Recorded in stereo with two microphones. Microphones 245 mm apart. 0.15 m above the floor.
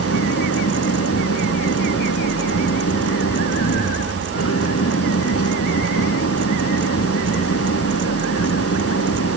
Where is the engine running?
70° left (ahead or behind).